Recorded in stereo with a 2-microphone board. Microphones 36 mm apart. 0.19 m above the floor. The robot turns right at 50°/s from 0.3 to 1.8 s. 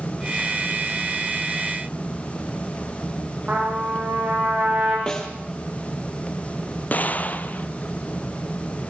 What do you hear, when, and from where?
3.5 s a trumpet: 35° right (ahead or behind), 9.5 m
5.1 s a snare drum: 25° left (ahead or behind), 4 m
6.9 s an explosion: 50° left (ahead or behind), 1.2 m